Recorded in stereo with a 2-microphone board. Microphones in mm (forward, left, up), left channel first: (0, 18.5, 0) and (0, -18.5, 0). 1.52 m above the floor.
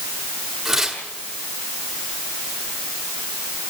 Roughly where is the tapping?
No tapping in this recording.